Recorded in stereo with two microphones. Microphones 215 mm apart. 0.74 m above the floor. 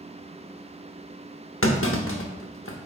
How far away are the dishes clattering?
I don't hear dishes clattering.